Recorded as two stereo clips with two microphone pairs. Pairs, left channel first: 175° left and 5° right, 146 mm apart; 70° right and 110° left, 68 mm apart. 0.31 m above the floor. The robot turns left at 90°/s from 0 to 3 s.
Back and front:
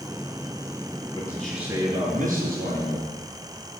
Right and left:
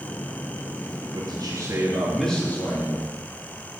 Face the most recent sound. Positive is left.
turn(degrees=-50)